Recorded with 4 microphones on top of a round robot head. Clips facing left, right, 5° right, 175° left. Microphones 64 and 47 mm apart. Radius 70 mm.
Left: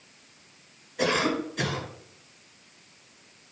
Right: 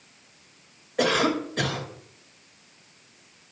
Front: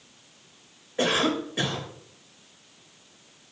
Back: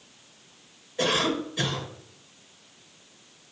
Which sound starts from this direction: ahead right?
A cough, at 1.0 s.